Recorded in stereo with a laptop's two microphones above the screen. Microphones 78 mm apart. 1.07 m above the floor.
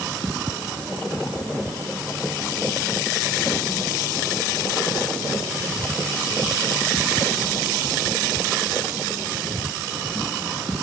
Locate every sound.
Only background noise.